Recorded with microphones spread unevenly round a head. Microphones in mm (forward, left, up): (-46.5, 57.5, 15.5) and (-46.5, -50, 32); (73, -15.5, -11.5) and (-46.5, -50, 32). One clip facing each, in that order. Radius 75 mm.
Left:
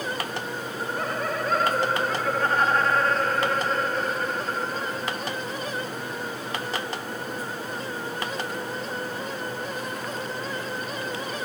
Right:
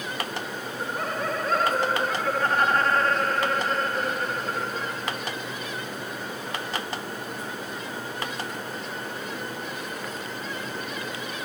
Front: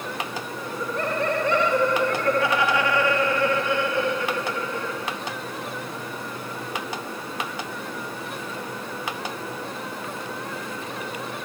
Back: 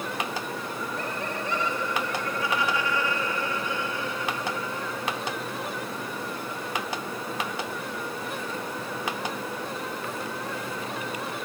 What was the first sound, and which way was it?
Laughter, straight ahead.